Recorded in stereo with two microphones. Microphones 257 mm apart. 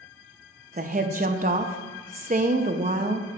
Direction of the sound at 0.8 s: 30° right (ahead or behind).